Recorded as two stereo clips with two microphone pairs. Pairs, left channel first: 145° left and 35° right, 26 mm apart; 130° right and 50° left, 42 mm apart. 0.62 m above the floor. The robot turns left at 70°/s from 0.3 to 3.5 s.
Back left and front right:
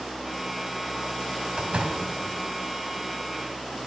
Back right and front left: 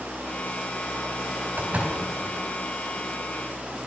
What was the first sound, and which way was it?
A door slam, 10° left.